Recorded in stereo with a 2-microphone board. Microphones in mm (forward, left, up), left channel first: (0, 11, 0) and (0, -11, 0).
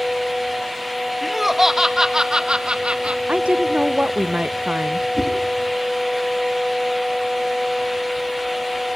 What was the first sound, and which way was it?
Laughter, 5° right (ahead or behind).